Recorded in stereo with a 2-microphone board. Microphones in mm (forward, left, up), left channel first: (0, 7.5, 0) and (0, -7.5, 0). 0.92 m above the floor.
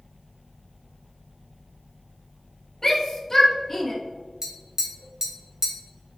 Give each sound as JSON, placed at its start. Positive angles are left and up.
{"t": 2.8, "sound": "a shout", "side_deg": 30, "distance_m": 1.7}
{"t": 4.4, "sound": "tapping", "side_deg": -40, "distance_m": 1.1}